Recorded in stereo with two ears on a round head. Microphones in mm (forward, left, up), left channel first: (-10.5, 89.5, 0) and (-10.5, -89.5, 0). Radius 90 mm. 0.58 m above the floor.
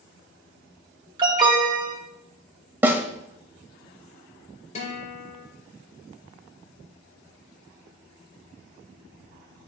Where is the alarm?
25° right (ahead or behind), 1.8 m.